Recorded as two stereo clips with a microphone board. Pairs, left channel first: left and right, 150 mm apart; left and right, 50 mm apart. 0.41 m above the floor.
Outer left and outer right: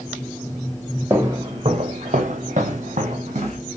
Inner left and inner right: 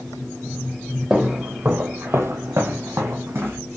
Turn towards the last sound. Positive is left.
turn(degrees=-50)  # may be behind; listen again after turning